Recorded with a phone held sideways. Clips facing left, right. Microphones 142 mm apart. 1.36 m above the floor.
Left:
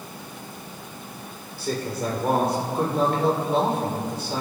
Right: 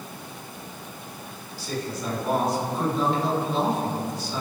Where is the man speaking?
60° left (ahead or behind), 6 m.